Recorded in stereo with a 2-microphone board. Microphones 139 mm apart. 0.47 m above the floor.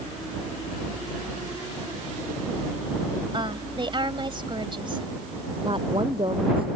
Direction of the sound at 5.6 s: 40° right (ahead or behind).